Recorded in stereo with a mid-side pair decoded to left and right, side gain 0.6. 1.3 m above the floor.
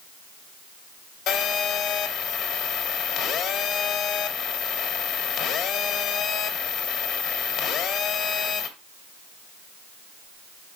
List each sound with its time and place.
1.3 s a phone buzzing: 70° left, 1.8 m